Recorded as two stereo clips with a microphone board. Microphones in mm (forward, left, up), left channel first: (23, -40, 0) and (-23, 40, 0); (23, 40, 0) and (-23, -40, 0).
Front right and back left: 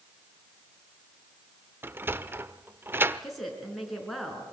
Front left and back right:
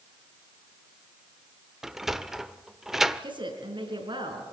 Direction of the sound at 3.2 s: 150° right.